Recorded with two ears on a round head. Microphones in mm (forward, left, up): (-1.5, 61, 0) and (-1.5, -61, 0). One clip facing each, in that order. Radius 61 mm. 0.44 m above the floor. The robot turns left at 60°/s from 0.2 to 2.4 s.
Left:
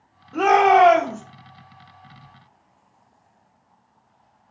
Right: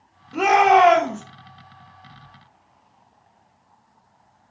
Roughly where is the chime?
I don't hear a chime.